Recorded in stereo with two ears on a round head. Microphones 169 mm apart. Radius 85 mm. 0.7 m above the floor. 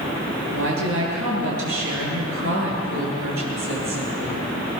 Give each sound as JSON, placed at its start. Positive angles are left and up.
{"t": 0.5, "sound": "a woman speaking", "side_deg": -80, "distance_m": 9.5}